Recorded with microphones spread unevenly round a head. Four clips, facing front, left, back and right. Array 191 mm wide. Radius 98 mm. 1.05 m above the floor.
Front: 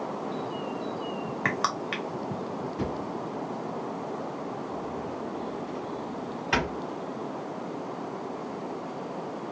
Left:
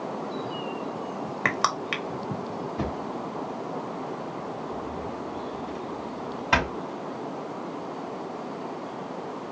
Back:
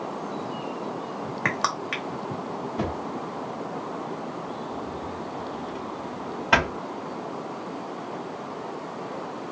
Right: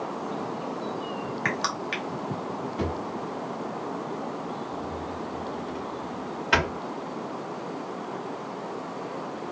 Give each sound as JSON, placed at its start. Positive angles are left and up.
{"t": 1.4, "sound": "crushing", "azimuth_deg": 135, "distance_m": 1.1}
{"t": 2.8, "sound": "a drawer", "azimuth_deg": 160, "distance_m": 3.0}